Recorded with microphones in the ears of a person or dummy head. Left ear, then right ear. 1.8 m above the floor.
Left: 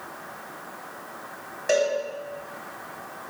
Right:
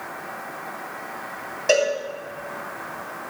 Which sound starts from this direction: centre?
A cowbell, at 1.7 s.